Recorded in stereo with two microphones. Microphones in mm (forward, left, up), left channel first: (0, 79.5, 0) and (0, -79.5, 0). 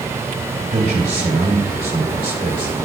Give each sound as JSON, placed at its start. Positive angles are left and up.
{"t": 0.7, "sound": "a man speaking", "side_deg": -75, "distance_m": 2.0}